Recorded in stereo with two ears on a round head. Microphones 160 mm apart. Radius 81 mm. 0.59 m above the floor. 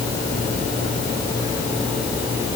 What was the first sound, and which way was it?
Only background noise.